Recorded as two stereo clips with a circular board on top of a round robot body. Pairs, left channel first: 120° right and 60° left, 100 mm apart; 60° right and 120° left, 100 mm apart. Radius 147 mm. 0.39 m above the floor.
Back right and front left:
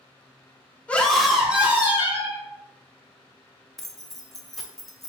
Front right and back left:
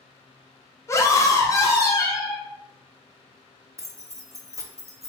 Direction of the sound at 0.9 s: 60° right.